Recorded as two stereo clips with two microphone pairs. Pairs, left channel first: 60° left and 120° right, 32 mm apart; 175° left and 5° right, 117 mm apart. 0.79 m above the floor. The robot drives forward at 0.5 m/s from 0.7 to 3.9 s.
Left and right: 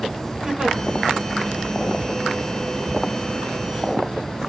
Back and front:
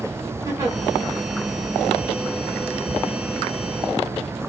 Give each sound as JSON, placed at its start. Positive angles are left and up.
{"t": 0.5, "sound": "a giggle", "azimuth_deg": -55, "distance_m": 1.6}